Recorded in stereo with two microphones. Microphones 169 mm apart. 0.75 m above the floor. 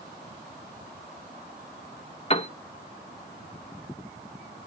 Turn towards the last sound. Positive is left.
turn(degrees=35)  # may be behind; listen again after turning